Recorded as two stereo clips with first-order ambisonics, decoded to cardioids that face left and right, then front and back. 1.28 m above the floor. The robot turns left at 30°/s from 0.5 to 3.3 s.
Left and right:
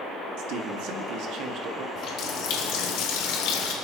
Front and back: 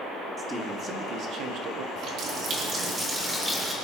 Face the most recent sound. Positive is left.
turn(degrees=100)